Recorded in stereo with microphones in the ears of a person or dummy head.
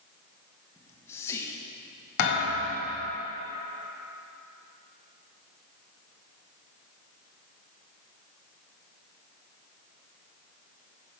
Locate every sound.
0.8 s whispering: 15° left (ahead or behind), 1.0 m
2.2 s a thud: 65° left (ahead or behind), 1.5 m